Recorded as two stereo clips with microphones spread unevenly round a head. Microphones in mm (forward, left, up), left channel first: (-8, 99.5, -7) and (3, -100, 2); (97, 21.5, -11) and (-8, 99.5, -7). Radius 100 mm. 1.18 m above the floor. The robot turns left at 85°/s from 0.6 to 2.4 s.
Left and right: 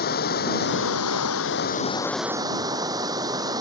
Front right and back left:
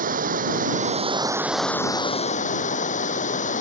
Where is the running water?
140° left; by 3.6 s 15° right.